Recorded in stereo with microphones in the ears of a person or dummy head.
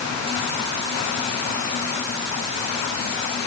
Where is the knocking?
No knocking in this recording.